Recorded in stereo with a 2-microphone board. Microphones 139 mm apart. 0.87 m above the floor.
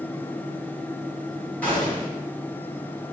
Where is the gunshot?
10° left (ahead or behind), 1.4 m.